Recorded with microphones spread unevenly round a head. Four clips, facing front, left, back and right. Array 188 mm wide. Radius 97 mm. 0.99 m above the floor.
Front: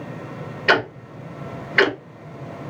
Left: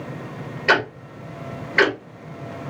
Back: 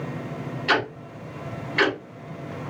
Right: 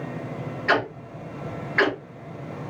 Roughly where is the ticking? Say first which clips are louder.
Left 3 dB, front 5 dB; ahead left.